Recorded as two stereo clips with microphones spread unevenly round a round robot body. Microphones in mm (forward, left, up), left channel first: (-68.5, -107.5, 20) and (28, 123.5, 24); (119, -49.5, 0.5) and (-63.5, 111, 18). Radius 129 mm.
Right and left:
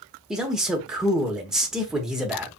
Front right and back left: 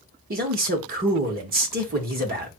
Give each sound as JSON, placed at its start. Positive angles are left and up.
{"t": 0.3, "sound": "a man speaking", "azimuth_deg": 155, "distance_m": 1.2}